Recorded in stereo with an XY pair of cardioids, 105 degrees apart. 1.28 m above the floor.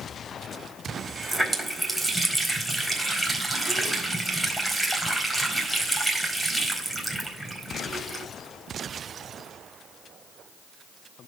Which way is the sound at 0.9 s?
5° right.